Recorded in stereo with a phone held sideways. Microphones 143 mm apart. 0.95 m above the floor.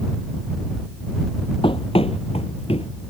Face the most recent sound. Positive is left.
turn(degrees=40)  # may be behind; listen again after turning